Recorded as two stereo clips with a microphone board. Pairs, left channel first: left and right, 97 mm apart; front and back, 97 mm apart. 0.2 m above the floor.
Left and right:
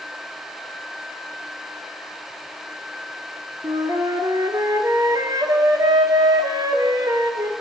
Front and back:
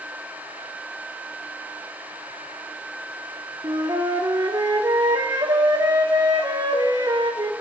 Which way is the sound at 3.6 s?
135° right.